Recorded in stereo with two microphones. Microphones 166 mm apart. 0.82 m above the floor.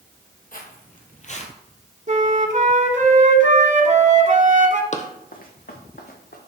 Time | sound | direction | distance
0.5 | footsteps | 55° left (ahead or behind) | 1.5 m
2.1 | a flute | 45° right (ahead or behind) | 1.1 m
4.9 | running footsteps | 45° left (ahead or behind) | 1.1 m